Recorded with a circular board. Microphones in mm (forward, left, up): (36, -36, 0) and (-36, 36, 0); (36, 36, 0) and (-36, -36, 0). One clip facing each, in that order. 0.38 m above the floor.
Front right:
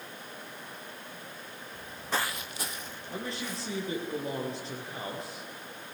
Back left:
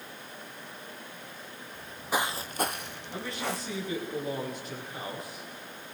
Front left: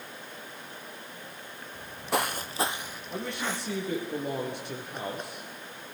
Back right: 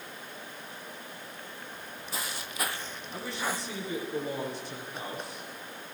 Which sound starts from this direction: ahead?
A man speaking, at 3.1 s.